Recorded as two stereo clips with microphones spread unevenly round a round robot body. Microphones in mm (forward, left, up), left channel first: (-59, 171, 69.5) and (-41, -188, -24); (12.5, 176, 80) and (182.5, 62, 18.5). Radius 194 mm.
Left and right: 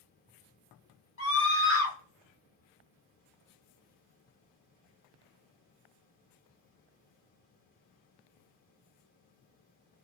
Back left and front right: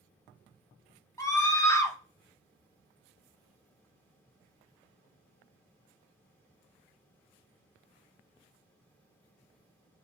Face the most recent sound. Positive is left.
turn(degrees=50)